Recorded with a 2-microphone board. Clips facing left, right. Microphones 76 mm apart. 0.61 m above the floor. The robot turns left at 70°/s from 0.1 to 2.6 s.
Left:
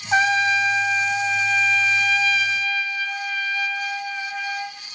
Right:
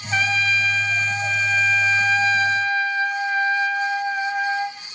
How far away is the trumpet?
About 1.1 m.